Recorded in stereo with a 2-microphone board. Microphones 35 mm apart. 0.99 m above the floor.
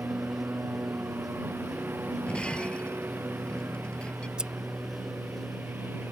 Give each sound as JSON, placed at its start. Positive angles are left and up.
{"t": 0.0, "sound": "a lawn mower", "side_deg": -75}
{"t": 2.3, "sound": "breaking glass", "side_deg": 30}
{"t": 4.4, "sound": "scissors", "side_deg": -25}